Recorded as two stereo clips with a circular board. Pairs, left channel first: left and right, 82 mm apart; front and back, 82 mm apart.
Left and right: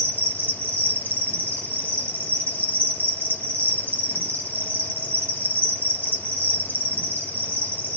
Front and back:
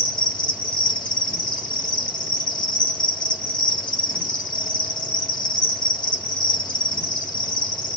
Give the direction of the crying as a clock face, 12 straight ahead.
I don't hear crying.